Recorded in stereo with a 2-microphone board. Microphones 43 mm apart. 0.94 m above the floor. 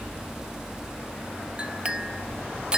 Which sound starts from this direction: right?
A clink, at 1.6 s.